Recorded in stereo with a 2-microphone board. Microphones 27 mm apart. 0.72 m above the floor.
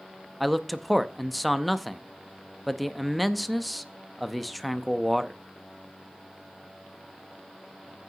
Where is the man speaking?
Centre (ahead or behind), 0.5 m.